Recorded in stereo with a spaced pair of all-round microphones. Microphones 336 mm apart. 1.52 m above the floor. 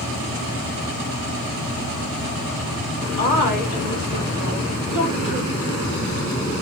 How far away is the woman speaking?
About 4.5 m.